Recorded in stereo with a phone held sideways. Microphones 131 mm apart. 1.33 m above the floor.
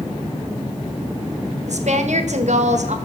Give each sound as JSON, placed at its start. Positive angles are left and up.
{"t": 1.7, "sound": "a woman speaking", "side_deg": -70, "distance_m": 1.4}